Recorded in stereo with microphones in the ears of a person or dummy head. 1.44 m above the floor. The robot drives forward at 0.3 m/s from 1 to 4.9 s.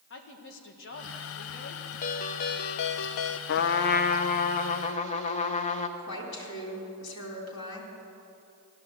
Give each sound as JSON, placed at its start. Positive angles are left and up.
{"t": 0.1, "sound": "a woman speaking", "side_deg": 55, "distance_m": 1.6}
{"t": 2.0, "sound": "a ringtone", "side_deg": 40, "distance_m": 0.7}
{"t": 3.5, "sound": "a trumpet", "side_deg": 55, "distance_m": 0.6}
{"t": 6.0, "sound": "a woman speaking", "side_deg": 85, "distance_m": 3.5}